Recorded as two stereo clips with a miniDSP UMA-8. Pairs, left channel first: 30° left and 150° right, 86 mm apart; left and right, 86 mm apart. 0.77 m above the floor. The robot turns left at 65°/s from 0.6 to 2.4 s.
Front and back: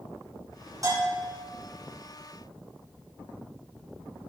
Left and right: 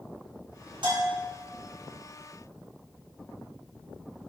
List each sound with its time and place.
0.8 s a bell: 105° right, 5.5 m; by 1.3 s 135° right, 5.5 m